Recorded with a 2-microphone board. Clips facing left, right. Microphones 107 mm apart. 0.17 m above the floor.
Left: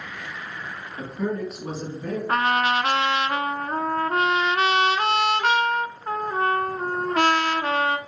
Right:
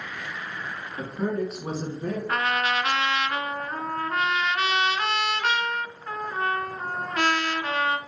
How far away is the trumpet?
About 0.6 m.